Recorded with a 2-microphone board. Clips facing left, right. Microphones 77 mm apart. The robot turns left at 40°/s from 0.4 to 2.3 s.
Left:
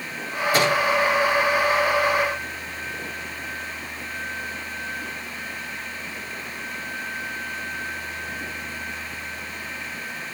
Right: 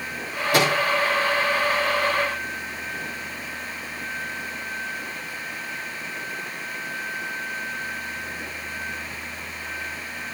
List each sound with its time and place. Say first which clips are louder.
0.5 s a microwave: even; 60° right (ahead or behind), 9 m; by 0.8 s 50° right (ahead or behind), 9 m